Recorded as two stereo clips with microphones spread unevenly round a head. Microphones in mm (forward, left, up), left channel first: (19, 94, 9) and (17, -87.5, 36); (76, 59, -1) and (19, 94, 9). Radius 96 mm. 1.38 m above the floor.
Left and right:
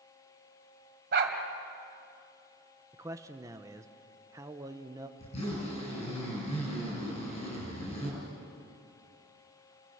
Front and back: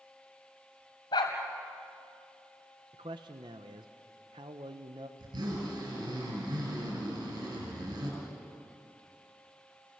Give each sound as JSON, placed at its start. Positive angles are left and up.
{"t": 1.1, "sound": "a dog barking", "azimuth_deg": -70, "distance_m": 2.5}
{"t": 2.9, "sound": "a man speaking", "azimuth_deg": -165, "distance_m": 1.0}
{"t": 5.2, "sound": "a zipper", "azimuth_deg": 150, "distance_m": 8.5}